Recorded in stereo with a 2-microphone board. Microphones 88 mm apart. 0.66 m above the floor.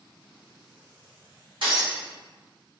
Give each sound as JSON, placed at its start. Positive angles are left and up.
{"t": 1.6, "sound": "breaking glass", "side_deg": -65, "distance_m": 1.8}